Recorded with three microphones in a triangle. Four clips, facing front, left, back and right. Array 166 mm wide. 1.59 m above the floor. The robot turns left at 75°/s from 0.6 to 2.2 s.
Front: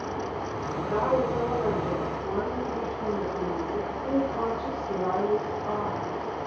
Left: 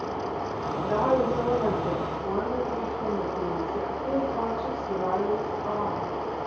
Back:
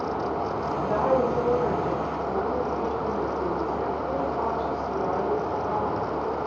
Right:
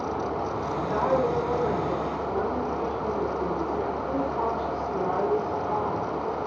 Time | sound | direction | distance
0.8 | a woman speaking | 165° left | 6.5 m